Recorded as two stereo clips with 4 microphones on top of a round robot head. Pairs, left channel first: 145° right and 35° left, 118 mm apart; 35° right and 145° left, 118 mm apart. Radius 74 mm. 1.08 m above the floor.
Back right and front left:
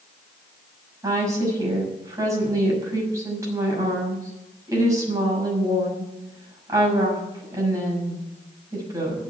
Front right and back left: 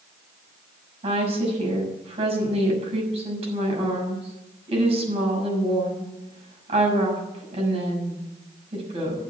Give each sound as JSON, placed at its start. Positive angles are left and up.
{"t": 1.0, "sound": "a woman speaking", "azimuth_deg": 100, "distance_m": 6.5}